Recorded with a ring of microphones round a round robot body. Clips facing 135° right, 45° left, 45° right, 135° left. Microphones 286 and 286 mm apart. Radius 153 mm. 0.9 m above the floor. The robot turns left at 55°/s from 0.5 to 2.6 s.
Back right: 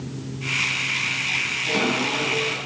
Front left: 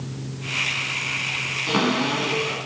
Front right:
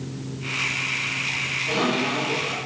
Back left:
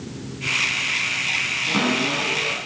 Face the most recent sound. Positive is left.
turn(degrees=70)